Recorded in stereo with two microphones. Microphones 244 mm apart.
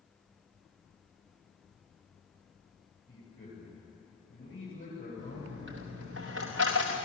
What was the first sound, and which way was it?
A man speaking, 55° left (ahead or behind).